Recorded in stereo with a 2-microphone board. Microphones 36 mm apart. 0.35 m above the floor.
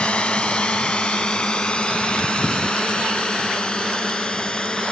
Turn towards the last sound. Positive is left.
turn(degrees=20)  # may be behind; listen again after turning